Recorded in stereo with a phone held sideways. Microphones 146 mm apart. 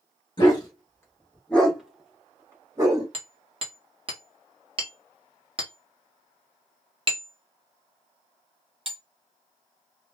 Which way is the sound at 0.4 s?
35° left (ahead or behind).